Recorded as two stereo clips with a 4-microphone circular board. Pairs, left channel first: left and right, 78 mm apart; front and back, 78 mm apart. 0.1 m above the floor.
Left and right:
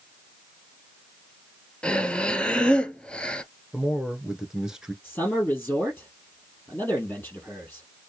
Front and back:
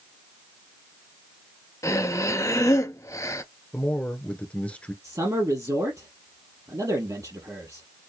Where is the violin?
I don't hear a violin.